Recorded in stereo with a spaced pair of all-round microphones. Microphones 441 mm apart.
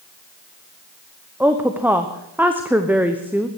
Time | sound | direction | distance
1.4 | a woman speaking | 5° right (ahead or behind) | 0.8 m